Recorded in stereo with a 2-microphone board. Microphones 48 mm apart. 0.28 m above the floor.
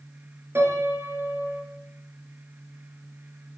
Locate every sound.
0.6 s a piano: 55° right (ahead or behind), 2 m